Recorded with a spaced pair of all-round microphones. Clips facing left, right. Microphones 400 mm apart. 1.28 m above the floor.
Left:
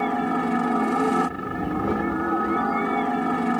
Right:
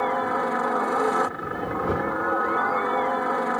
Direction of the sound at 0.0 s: 45° left (ahead or behind).